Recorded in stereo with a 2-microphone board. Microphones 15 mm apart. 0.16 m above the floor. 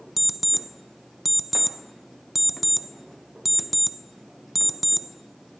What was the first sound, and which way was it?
An alarm clock, 5° right (ahead or behind).